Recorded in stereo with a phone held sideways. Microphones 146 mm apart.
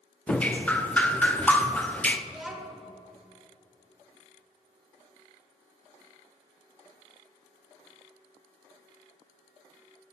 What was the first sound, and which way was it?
Dripping, 10° left (ahead or behind).